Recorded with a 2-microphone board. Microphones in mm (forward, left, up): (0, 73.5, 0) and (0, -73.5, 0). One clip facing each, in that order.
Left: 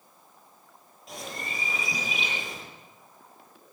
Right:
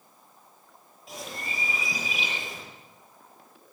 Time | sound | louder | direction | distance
1.1 | a bird | even | centre (ahead or behind) | 7 m